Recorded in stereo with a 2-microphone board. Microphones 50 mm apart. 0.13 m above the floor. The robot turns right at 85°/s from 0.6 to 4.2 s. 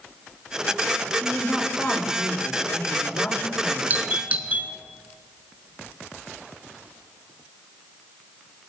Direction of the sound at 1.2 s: 25° right.